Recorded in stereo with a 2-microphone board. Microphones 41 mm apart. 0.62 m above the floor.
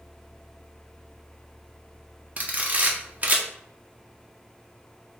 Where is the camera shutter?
40° right (ahead or behind), 0.8 m.